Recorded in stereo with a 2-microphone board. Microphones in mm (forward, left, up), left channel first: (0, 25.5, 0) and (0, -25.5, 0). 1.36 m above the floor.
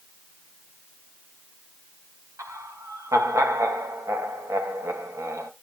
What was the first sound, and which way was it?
Laughter, 80° right.